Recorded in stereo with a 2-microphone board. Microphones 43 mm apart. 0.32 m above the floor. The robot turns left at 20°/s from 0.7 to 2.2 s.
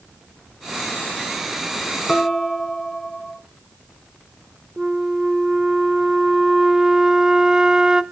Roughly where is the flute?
Centre.